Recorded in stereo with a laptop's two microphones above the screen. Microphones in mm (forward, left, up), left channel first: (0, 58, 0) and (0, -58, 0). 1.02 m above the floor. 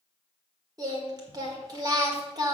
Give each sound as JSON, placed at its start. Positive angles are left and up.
{"t": 0.8, "sound": "singing", "side_deg": -35, "distance_m": 1.6}